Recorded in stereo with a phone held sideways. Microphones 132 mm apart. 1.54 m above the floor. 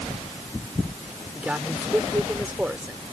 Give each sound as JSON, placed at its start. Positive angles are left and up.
{"t": 1.4, "sound": "a man speaking", "side_deg": -10}